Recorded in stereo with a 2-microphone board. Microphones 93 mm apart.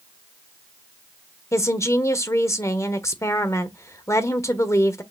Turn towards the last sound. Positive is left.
turn(degrees=35)  # may be behind; listen again after turning